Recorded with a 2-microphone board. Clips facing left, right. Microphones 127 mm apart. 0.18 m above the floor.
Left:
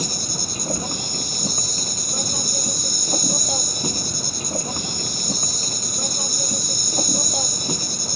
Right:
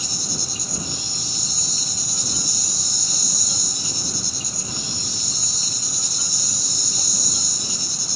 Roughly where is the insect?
Left.